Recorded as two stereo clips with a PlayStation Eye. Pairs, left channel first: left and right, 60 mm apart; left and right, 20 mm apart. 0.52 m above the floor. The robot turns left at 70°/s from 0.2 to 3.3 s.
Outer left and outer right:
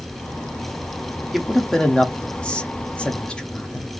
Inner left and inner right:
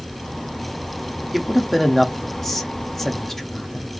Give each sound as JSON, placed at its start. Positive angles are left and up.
{"t": 1.3, "sound": "a man speaking", "side_deg": -5, "distance_m": 0.6}